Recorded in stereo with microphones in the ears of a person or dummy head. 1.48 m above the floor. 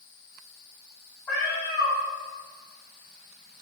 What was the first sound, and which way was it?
A cat meowing, 5° left (ahead or behind).